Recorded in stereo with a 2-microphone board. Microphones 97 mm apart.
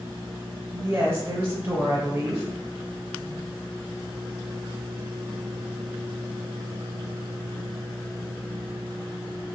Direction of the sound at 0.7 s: 25° right (ahead or behind).